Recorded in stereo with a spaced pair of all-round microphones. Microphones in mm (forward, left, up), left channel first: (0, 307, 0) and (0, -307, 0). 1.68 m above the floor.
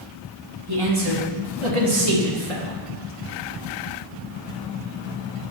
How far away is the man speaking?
About 1.9 m.